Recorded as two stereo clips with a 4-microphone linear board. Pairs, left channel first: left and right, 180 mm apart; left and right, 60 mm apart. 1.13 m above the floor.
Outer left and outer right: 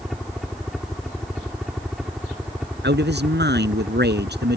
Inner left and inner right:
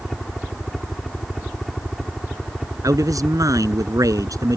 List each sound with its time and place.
0.0 s a helicopter: centre (ahead or behind); by 4.6 s 5° right (ahead or behind)
2.8 s a man speaking: 70° right (ahead or behind)